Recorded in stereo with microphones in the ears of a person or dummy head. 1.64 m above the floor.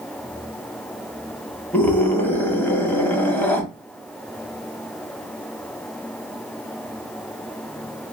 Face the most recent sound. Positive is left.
turn(degrees=5)  # may be behind; listen again after turning